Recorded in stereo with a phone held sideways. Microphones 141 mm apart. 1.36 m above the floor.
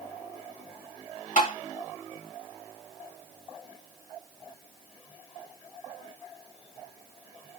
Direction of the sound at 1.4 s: 65° left (ahead or behind).